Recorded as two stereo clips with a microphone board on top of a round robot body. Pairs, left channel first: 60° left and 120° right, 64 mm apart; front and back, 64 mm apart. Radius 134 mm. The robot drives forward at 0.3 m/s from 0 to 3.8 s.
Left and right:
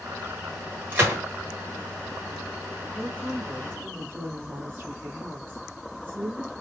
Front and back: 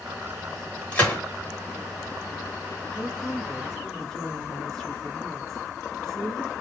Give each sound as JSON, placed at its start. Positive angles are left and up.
{"t": 0.9, "sound": "a gunshot", "azimuth_deg": -60, "distance_m": 1.8}
{"t": 3.0, "sound": "a woman speaking", "azimuth_deg": -75, "distance_m": 1.9}